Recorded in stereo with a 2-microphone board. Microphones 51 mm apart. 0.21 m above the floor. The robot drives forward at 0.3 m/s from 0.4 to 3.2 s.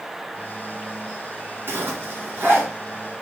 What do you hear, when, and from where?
1.7 s a zipper: 55° right (ahead or behind), 1.1 m; by 2.7 s 45° right (ahead or behind), 1.3 m